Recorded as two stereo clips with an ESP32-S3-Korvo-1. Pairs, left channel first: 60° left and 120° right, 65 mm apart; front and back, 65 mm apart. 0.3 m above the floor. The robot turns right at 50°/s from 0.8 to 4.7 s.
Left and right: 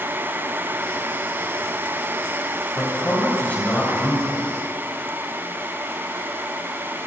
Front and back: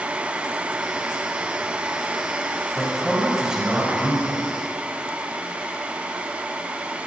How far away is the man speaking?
About 1.3 m.